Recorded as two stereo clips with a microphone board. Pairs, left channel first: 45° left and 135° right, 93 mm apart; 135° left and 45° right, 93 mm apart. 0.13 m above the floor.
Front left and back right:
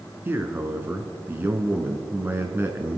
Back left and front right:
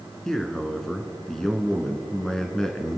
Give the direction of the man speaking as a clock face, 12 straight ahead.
5 o'clock.